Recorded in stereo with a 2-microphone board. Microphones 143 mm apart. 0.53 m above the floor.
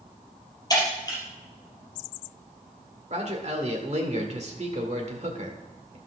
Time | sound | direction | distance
0.7 | breaking glass | 25° left (ahead or behind) | 5 m
3.1 | a man speaking | 50° right (ahead or behind) | 1.9 m